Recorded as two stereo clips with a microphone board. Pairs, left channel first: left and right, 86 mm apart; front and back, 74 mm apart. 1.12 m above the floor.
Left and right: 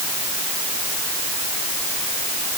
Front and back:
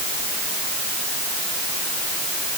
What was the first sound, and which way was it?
Only background noise.